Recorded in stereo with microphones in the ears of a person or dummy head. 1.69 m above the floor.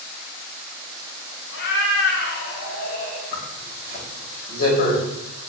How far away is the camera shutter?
I don't hear a camera shutter.